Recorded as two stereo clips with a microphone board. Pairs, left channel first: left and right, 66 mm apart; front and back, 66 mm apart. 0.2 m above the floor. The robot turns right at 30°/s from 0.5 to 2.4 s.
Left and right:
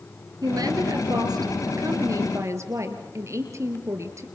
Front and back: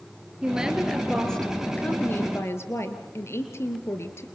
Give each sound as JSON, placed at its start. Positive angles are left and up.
{"t": 0.4, "sound": "a woman speaking", "azimuth_deg": -105, "distance_m": 3.5}